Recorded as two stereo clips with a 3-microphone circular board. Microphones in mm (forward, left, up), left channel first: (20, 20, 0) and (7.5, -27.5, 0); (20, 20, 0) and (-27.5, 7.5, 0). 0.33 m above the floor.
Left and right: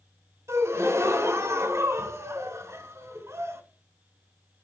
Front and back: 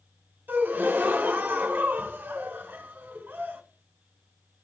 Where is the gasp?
110° right, 1.4 m.